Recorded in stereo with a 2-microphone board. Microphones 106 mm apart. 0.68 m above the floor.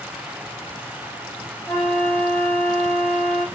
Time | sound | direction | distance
1.7 | a flute | 15° left (ahead or behind) | 2.5 m